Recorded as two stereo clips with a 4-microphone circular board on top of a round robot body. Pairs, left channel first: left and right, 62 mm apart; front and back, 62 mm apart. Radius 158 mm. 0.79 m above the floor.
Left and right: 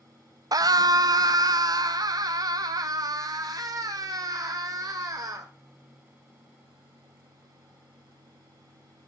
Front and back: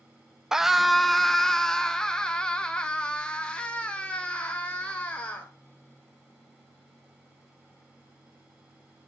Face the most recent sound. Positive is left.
turn(degrees=-70)